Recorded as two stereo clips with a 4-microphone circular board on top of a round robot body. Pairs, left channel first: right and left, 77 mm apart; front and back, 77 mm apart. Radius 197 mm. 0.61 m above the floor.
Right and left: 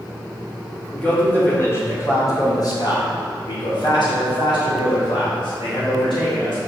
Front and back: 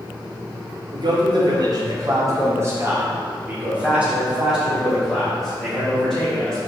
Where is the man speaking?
165° right, 2.5 m; by 6.6 s 85° right, 4.5 m.